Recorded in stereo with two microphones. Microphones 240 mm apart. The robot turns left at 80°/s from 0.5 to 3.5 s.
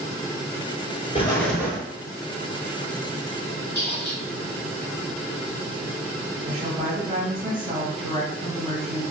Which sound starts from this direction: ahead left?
An explosion, at 1.1 s.